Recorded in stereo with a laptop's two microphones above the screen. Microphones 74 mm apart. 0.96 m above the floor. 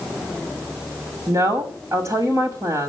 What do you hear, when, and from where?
1.3 s a woman speaking: 50° right (ahead or behind), 3 m